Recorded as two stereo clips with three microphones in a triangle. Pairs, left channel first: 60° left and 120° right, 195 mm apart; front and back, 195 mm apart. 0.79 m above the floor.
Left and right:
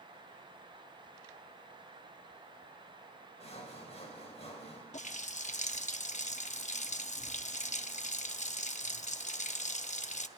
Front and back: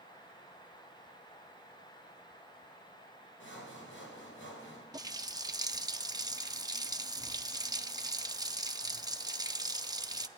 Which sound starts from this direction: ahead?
Sawing, at 3.4 s.